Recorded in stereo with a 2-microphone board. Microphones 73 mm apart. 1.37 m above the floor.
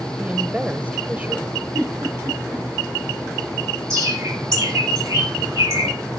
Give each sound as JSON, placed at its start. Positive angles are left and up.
{"t": 0.2, "sound": "a woman speaking", "side_deg": -15, "distance_m": 0.5}
{"t": 1.7, "sound": "a giggle", "side_deg": -45, "distance_m": 3.5}
{"t": 3.9, "sound": "a bird", "side_deg": -45, "distance_m": 6.0}